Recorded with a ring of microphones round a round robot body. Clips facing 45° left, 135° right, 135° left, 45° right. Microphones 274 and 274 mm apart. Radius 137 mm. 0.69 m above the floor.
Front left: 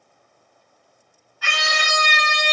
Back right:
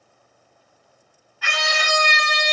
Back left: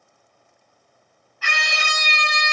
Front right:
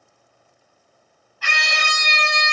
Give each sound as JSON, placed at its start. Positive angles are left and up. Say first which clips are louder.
{"t": 1.4, "sound": "a scream", "louder": "back right 2 dB, front right 1 dB", "azimuth_deg": 0, "distance_m": 3.0}